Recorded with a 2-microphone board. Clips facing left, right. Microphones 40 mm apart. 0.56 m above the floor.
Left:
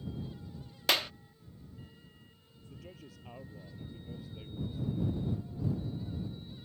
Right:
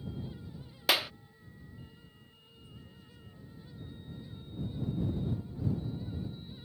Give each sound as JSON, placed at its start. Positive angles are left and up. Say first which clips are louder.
{"t": 0.9, "sound": "a clap", "louder": "right 1 dB", "side_deg": -5}
{"t": 2.7, "sound": "a man speaking", "louder": "left 6 dB", "side_deg": 85}